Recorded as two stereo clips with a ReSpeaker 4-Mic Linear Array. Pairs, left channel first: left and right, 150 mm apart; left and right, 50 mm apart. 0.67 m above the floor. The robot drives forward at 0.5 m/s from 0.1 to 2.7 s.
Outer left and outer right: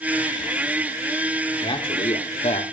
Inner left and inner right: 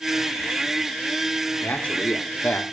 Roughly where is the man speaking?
Left.